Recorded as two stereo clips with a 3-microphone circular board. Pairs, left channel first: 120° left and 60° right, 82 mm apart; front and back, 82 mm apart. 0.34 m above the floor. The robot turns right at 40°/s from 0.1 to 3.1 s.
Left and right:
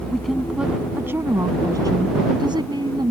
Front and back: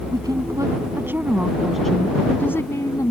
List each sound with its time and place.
0.1 s a woman speaking: 155° right; by 3.1 s 40° right